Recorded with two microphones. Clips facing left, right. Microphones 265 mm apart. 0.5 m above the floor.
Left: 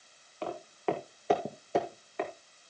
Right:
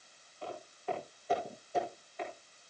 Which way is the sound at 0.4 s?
75° left (ahead or behind).